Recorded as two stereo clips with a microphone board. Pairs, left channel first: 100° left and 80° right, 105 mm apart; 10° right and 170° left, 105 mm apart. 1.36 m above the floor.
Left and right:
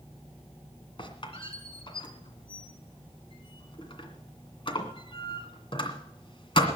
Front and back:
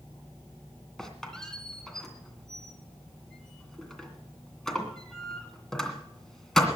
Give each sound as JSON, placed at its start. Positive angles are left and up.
{"t": 1.0, "sound": "a squeak", "azimuth_deg": 75, "distance_m": 2.0}